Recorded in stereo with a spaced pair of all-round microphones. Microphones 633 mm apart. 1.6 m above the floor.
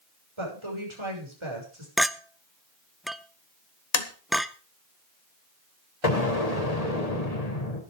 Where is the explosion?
75° left (ahead or behind), 3.5 m.